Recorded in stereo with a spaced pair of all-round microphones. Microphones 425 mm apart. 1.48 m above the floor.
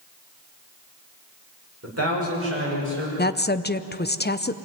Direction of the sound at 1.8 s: 35° right (ahead or behind).